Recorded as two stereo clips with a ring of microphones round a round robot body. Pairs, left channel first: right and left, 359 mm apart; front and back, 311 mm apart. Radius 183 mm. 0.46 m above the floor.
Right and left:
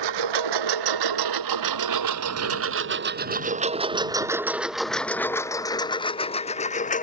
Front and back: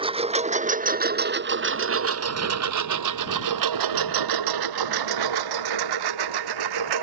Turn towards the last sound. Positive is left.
turn(degrees=-160)